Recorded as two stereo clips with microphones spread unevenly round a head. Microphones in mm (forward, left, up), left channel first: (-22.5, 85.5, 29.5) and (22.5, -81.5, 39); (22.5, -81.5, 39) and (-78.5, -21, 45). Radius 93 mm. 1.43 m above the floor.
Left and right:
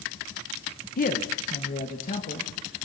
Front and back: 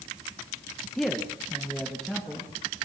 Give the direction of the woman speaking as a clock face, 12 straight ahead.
10 o'clock.